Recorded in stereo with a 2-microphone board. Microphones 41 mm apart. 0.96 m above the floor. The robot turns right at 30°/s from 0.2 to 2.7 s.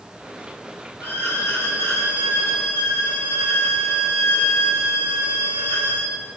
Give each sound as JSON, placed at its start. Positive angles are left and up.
{"t": 1.0, "sound": "a violin", "azimuth_deg": 60, "distance_m": 1.5}